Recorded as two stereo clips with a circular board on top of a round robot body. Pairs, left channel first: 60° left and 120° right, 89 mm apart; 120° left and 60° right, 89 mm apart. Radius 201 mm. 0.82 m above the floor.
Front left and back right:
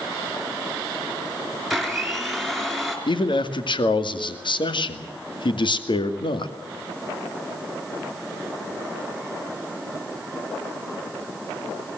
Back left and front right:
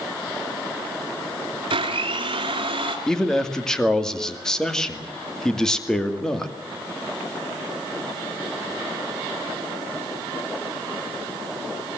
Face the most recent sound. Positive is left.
turn(degrees=35)